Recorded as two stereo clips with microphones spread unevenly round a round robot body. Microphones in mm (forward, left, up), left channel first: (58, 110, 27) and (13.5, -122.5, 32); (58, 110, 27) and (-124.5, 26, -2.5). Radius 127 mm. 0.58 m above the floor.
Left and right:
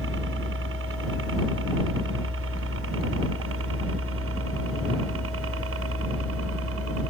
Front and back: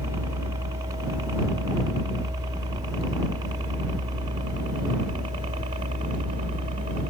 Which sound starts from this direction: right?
A helicopter, at 0.0 s.